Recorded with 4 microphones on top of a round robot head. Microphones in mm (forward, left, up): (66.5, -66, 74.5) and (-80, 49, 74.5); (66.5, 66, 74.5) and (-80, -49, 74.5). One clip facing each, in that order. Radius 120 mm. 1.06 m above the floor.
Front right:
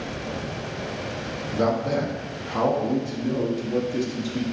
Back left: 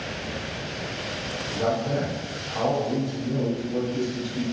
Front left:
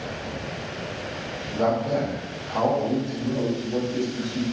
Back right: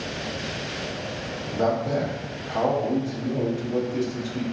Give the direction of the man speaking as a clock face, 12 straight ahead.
2 o'clock.